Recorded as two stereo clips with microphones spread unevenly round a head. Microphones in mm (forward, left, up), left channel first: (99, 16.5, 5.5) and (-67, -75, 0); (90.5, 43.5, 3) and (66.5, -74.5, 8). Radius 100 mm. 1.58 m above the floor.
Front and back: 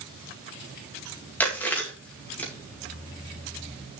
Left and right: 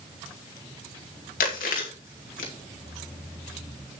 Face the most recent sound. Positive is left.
turn(degrees=110)